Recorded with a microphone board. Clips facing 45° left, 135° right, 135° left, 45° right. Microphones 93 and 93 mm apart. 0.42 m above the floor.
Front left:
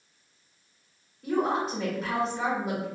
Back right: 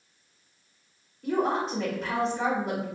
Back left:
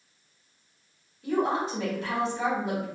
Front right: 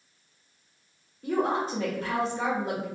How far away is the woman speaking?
About 1.6 m.